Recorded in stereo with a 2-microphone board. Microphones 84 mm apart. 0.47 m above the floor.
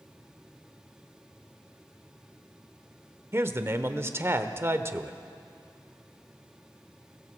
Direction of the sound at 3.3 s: 30° right (ahead or behind).